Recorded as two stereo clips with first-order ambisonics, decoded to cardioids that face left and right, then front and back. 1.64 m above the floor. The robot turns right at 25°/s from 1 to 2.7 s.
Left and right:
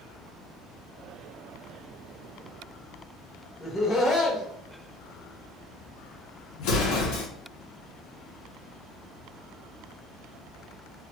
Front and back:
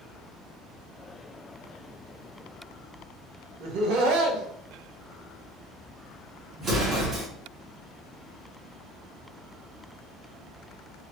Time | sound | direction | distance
3.6 | laughter | 165° left | 1.1 m
6.6 | an explosion | 110° left | 1.1 m